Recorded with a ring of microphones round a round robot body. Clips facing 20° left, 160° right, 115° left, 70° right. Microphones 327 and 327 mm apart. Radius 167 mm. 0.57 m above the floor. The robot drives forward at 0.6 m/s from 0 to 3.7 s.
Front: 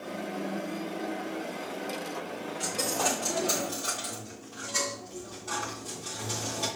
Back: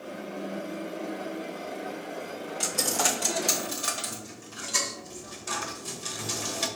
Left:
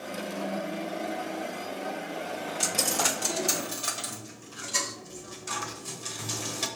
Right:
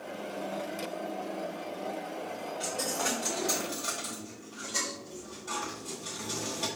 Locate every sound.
2.6 s a dropped coin: 135° left, 0.7 m; by 6.7 s 160° left, 1.2 m